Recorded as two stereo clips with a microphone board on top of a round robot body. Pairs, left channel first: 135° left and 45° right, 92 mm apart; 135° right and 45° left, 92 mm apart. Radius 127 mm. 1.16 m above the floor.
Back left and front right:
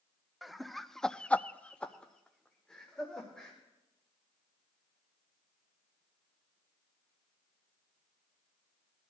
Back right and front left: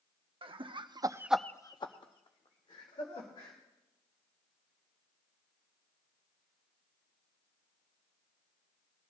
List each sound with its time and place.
0.4 s laughter: 45° left, 1.1 m; by 3.6 s 145° right, 2.5 m